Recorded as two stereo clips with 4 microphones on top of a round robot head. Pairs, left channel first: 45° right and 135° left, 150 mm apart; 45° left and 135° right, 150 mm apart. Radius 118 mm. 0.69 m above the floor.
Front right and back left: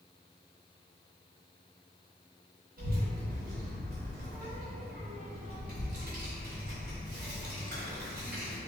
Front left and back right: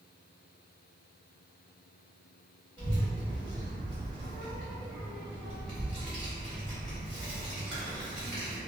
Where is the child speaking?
140° left, 0.9 m.